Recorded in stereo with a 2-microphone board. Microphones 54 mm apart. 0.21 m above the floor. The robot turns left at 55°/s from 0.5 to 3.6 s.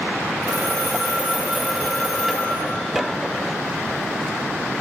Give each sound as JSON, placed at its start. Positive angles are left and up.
{"t": 0.4, "sound": "a phone ringing", "azimuth_deg": -95, "distance_m": 1.9}